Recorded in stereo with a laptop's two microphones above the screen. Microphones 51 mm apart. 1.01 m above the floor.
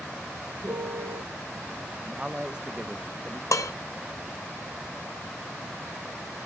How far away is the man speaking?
About 0.9 m.